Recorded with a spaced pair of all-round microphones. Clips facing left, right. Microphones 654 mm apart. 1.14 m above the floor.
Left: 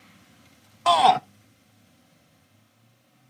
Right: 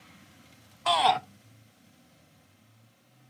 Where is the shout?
70° left (ahead or behind), 0.6 m.